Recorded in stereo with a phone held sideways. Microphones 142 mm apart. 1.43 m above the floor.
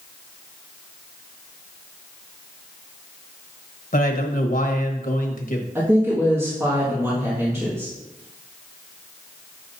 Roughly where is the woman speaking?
Centre.